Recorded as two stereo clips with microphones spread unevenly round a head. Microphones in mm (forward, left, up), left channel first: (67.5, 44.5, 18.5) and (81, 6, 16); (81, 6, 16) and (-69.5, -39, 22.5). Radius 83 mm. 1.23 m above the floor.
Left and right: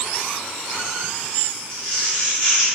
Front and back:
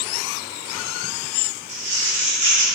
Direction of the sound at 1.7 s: 125° right.